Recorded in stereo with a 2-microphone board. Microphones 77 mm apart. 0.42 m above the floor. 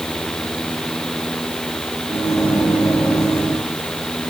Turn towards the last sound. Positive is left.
turn(degrees=40)  # may be behind; listen again after turning